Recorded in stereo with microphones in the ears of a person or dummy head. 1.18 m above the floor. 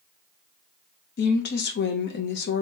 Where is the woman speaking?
50° left (ahead or behind), 0.7 m.